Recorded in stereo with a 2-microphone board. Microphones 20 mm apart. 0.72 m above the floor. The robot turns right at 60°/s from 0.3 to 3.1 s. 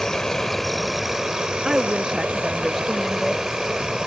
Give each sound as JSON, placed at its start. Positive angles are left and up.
{"t": 0.0, "sound": "an insect", "azimuth_deg": 150}
{"t": 1.6, "sound": "a woman speaking", "azimuth_deg": -90}